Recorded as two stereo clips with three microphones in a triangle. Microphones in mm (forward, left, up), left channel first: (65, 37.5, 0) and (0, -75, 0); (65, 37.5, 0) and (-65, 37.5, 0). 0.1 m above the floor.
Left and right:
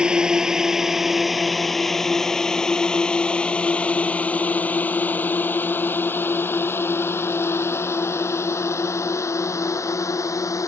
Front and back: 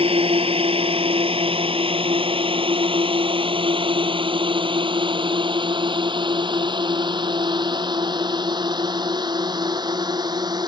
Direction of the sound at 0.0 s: 160° left.